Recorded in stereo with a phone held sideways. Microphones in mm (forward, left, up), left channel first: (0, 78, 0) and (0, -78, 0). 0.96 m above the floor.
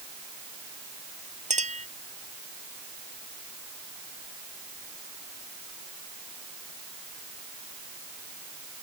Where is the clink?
45° right (ahead or behind).